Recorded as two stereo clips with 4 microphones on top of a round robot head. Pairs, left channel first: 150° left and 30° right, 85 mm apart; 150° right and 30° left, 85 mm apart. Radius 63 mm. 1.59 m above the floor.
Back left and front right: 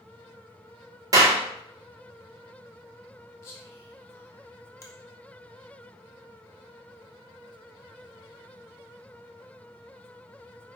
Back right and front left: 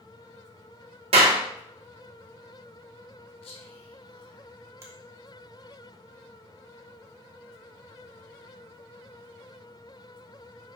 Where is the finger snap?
90° left, 1.8 m.